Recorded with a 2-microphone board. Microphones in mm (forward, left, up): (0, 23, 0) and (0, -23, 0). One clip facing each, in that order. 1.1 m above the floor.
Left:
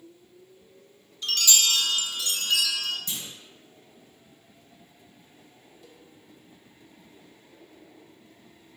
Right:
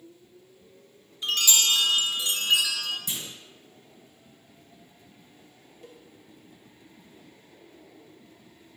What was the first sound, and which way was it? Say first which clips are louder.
A chime: right 1 dB; 20° right (ahead or behind).